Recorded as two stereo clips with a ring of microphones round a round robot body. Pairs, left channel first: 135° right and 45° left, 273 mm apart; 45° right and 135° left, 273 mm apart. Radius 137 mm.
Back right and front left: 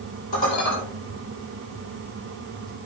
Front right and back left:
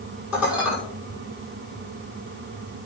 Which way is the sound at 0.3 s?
140° right.